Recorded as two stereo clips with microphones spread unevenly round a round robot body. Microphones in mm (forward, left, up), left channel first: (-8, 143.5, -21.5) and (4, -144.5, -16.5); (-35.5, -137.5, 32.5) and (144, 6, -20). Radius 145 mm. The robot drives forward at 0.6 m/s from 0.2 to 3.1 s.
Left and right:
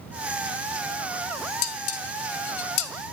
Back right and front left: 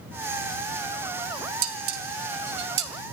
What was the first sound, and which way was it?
Dishes clattering, 55° left.